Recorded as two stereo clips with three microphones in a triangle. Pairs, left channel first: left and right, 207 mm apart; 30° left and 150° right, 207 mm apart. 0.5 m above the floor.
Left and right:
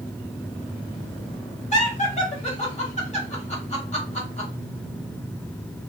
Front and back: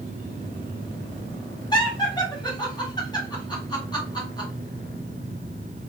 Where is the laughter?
85° left, 1.1 m.